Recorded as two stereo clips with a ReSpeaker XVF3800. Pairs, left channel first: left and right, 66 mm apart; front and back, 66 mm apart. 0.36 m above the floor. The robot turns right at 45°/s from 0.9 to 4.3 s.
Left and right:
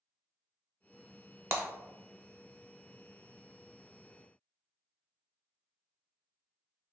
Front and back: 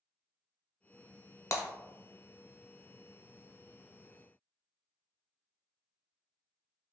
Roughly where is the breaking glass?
Ahead right.